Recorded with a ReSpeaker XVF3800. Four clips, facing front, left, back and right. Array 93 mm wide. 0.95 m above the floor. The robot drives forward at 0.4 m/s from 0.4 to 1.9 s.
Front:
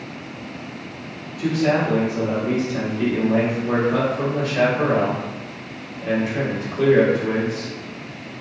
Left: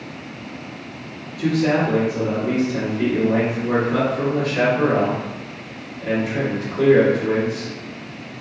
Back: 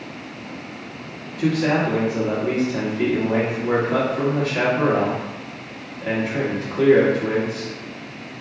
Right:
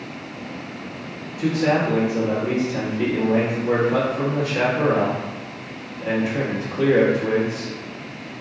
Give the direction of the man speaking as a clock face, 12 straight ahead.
5 o'clock.